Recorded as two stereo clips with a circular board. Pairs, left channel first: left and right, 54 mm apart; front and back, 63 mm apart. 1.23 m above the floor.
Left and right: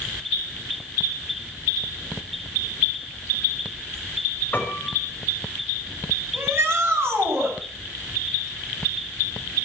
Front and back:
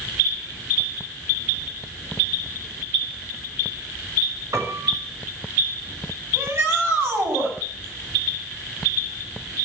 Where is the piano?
145° left, 6.5 m.